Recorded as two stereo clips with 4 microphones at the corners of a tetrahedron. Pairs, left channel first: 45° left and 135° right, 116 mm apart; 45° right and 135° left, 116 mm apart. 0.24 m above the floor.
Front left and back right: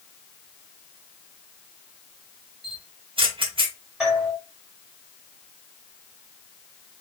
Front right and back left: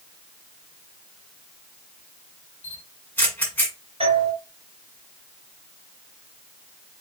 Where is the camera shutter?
115° right, 1.4 m.